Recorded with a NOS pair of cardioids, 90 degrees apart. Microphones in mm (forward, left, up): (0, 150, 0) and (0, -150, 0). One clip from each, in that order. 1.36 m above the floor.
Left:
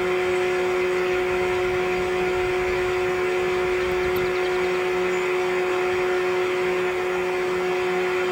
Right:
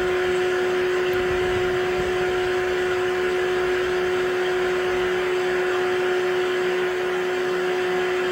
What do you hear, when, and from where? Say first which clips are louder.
0.0 s a fan: right 1 dB; straight ahead, 1.1 m